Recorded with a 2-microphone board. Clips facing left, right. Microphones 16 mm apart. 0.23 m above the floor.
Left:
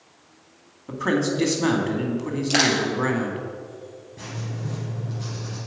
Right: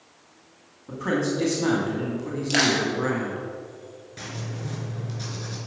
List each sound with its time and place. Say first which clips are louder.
0.9 s a man speaking: left 2 dB; 30° left (ahead or behind), 1.9 m
2.5 s crushing: left 1 dB; 10° left (ahead or behind), 2.5 m
4.2 s writing: left 1 dB; 55° right (ahead or behind), 3 m